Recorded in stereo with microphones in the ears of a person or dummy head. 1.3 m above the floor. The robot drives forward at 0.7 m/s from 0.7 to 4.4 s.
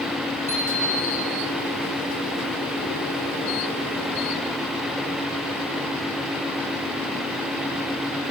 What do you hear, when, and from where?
0.5 s a bicycle bell: 15° left (ahead or behind), 6.5 m